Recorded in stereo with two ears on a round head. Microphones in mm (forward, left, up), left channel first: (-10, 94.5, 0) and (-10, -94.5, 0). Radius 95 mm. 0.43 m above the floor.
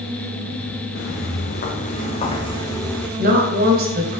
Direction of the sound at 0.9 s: 50° left (ahead or behind).